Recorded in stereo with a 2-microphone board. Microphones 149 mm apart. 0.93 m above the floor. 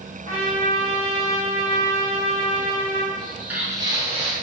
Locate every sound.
0.2 s a trumpet: 50° right (ahead or behind), 1.3 m
3.2 s footsteps: 5° left (ahead or behind), 0.9 m; by 4.3 s 40° right (ahead or behind), 1.2 m